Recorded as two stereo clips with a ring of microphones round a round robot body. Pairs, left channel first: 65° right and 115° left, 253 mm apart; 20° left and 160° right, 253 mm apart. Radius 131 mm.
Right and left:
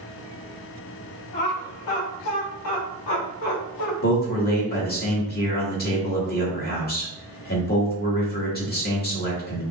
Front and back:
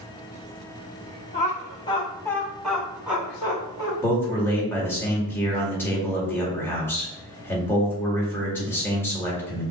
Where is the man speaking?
55° right, 1.8 m.